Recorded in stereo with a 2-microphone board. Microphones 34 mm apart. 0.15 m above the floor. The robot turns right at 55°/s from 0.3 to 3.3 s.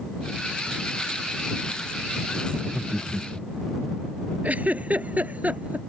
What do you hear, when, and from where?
2.5 s laughter: 55° right; by 3.7 s 10° right
4.4 s a giggle: 50° right (ahead or behind)